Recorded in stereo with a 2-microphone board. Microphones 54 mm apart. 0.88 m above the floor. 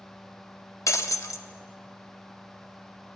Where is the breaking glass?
65° left (ahead or behind), 0.7 m.